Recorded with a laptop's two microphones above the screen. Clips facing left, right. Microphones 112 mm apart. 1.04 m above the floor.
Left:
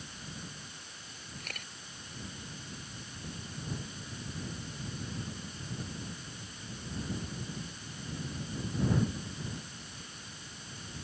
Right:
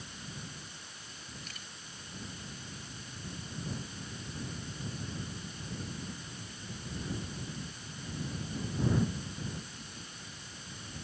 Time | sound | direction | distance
1.4 | a camera shutter | 60° left (ahead or behind) | ?